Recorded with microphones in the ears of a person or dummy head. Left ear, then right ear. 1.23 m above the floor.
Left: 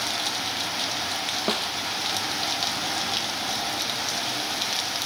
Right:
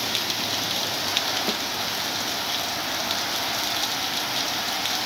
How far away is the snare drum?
About 0.5 m.